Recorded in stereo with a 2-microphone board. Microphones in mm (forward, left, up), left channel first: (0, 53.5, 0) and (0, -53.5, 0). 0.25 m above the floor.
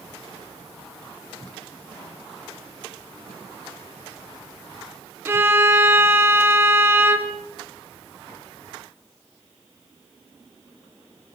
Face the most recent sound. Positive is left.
turn(degrees=-25)  # may be behind; listen again after turning